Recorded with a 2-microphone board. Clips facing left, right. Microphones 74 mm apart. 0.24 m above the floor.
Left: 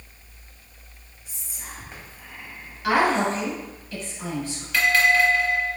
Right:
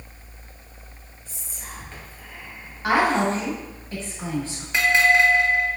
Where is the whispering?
20° left (ahead or behind), 0.9 m.